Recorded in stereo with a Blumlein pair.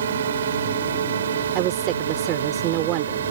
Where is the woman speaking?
35° right.